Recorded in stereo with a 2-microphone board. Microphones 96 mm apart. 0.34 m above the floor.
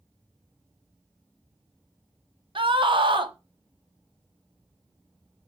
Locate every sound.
2.5 s a scream: 60° right (ahead or behind), 1.6 m